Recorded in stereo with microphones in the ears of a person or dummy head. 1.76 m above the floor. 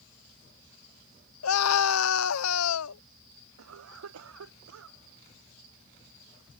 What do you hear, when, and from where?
1.4 s a scream: 85° left
3.6 s a cough: 80° right